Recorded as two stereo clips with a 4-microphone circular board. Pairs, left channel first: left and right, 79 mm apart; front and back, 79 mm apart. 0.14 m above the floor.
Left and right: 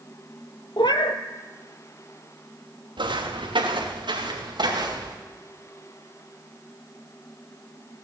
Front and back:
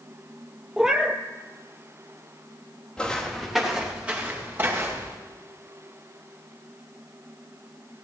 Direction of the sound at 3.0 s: 80° right.